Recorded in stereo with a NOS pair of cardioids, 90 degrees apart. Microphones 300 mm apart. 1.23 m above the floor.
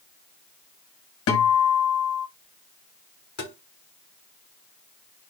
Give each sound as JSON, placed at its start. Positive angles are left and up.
{"t": 1.3, "sound": "a guitar", "azimuth_deg": 50, "distance_m": 5.0}
{"t": 3.4, "sound": "tapping", "azimuth_deg": 35, "distance_m": 5.0}